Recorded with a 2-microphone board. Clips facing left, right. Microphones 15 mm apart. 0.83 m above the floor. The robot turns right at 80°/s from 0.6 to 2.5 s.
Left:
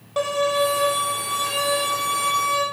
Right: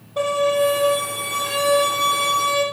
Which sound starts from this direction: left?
A violin, at 0.2 s.